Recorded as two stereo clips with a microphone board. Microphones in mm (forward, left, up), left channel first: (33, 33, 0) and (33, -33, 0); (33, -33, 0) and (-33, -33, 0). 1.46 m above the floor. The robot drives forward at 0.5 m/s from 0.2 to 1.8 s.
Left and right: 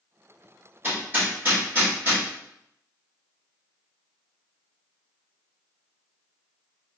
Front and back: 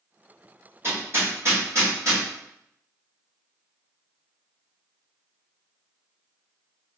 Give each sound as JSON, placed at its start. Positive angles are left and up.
{"t": 0.8, "sound": "hammering", "azimuth_deg": -140, "distance_m": 1.8}